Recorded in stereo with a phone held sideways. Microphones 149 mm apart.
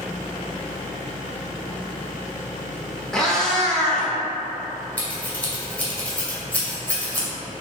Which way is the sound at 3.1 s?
5° left (ahead or behind).